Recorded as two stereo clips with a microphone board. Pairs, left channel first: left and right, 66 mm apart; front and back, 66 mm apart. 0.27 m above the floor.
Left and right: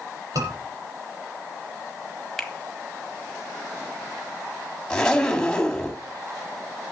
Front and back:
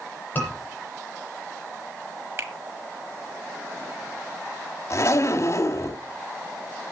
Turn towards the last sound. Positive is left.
turn(degrees=15)